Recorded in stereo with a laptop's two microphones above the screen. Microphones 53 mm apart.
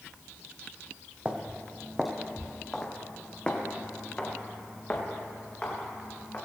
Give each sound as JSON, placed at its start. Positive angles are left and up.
{"t": 1.2, "sound": "footsteps", "side_deg": -25, "distance_m": 1.3}